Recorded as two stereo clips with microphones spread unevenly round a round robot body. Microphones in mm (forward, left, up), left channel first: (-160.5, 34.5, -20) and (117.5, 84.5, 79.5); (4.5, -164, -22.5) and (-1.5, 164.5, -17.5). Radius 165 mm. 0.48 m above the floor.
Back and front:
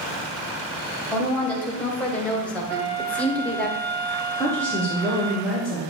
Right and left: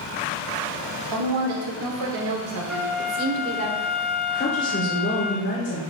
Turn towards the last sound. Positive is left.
turn(degrees=-115)